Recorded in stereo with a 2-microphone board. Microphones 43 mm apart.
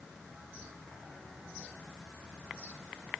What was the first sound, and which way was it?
Only background noise.